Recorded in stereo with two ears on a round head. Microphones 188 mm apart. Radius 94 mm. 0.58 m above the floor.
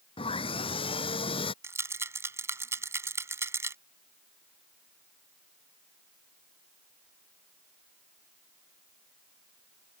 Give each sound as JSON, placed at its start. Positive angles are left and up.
{"t": 0.2, "sound": "sawing", "side_deg": 25}
{"t": 1.6, "sound": "a rattle", "side_deg": -15}